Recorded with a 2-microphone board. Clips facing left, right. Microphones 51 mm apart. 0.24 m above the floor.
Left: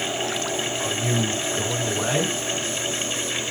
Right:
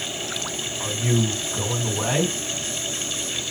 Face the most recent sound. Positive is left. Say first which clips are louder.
# right 4 dB
turn(degrees=-20)  # may be behind; listen again after turning